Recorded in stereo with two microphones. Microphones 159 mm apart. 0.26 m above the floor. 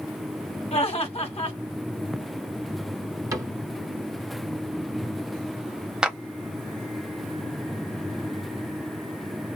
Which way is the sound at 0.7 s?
40° left (ahead or behind).